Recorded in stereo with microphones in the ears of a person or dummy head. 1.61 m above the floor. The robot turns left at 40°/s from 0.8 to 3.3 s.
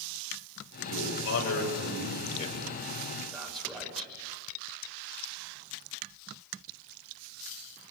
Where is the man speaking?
85° left, 8.5 m; by 4.1 s 5° right (ahead or behind), 8.5 m.